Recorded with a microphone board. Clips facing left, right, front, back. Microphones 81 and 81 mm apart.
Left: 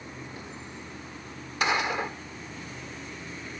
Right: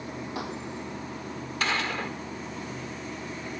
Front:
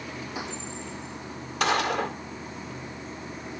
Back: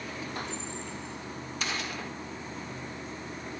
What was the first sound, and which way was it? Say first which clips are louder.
Running water: right 7 dB, front 1 dB; 80° right.